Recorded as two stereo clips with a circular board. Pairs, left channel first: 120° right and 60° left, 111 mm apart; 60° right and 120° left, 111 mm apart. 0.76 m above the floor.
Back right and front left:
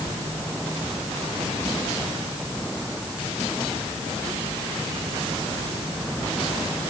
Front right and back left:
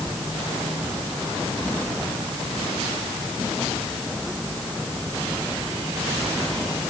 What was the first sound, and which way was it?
Only background noise.